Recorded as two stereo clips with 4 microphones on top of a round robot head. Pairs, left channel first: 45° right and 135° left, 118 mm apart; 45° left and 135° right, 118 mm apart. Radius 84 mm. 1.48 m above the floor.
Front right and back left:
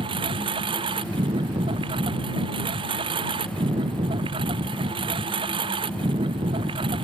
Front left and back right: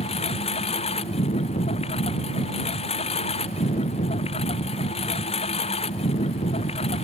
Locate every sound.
0.0 s a lawn mower: 85° left